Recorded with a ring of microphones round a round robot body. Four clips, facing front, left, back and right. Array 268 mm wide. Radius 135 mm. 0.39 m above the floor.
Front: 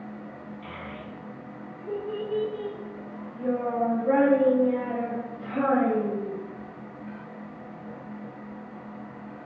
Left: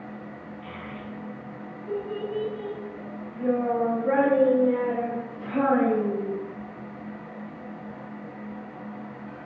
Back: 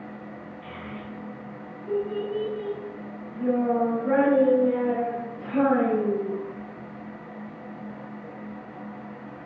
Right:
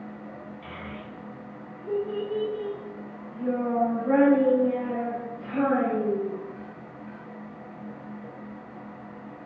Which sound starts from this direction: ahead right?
A child speaking, at 0.6 s.